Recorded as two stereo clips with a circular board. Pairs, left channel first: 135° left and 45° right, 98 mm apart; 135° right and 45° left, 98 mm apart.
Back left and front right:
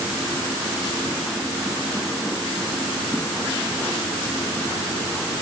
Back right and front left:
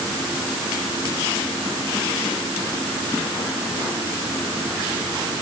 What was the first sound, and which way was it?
Only background noise.